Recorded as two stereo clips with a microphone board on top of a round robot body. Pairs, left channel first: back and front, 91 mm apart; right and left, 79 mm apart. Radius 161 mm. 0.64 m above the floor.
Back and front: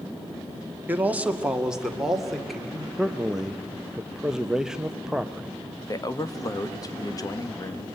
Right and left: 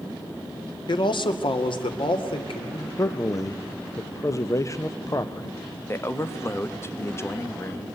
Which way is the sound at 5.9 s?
140° right.